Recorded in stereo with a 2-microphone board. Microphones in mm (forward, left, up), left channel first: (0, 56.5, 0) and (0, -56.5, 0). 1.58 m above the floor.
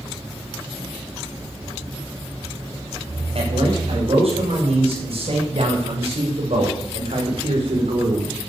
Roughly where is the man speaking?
Right.